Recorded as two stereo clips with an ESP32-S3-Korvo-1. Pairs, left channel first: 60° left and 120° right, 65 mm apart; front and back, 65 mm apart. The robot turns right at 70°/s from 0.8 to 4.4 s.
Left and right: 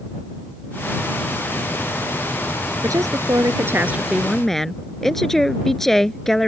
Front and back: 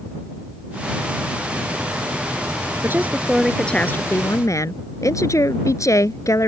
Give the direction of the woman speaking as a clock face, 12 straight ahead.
4 o'clock.